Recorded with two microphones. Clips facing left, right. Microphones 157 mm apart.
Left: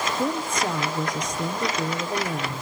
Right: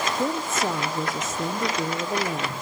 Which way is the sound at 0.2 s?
5° right (ahead or behind).